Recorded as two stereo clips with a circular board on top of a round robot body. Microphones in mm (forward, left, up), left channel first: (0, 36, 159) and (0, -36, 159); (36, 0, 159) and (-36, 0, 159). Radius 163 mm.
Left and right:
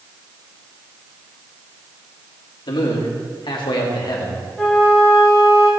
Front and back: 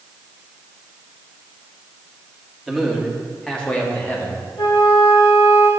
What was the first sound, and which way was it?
A man speaking, 90° left.